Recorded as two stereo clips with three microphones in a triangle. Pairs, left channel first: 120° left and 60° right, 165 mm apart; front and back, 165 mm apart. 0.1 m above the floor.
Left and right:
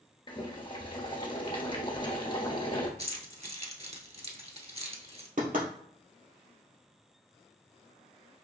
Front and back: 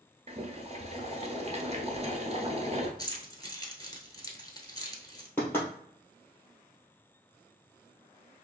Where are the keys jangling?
50° right, 1.0 m.